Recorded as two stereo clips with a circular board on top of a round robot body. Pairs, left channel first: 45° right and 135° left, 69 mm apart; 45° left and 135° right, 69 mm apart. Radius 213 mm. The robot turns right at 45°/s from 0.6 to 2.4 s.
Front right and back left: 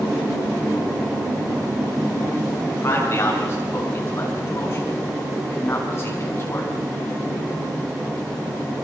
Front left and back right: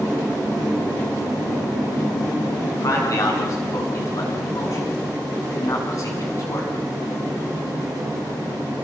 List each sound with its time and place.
2.7 s a man speaking: 5° left, 6.5 m